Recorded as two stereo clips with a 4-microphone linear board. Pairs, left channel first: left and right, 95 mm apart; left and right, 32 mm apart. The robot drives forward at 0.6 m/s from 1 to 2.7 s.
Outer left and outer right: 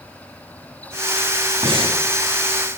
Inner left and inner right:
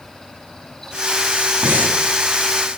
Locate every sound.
1.6 s breathing: 70° right (ahead or behind), 2.5 m